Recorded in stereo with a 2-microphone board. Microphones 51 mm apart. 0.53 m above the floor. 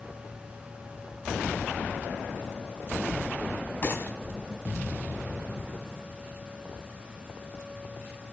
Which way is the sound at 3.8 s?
40° left (ahead or behind).